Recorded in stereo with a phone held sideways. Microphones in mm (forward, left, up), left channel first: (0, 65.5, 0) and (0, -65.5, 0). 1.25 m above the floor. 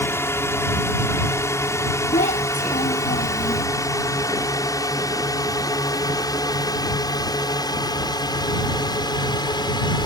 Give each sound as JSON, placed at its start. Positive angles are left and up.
{"t": 0.0, "sound": "a drone", "side_deg": 20}
{"t": 2.1, "sound": "a child speaking", "side_deg": 85}